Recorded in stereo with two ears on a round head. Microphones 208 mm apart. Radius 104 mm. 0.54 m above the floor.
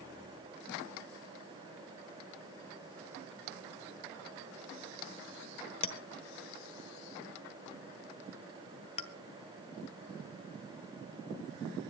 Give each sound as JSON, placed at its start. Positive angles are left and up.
{"t": 5.8, "sound": "a clink", "side_deg": 25, "distance_m": 1.2}